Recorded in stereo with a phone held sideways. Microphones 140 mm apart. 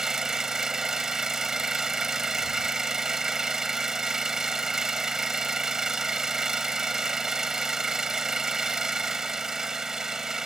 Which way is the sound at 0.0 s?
5° right (ahead or behind).